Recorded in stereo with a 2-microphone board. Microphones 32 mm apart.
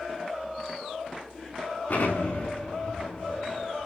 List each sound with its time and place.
1.9 s an explosion: 65° left (ahead or behind), 5.5 m